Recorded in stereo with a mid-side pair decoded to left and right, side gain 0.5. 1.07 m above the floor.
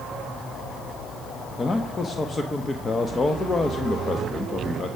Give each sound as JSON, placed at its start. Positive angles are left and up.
{"t": 1.6, "sound": "a man speaking", "azimuth_deg": 30, "distance_m": 1.0}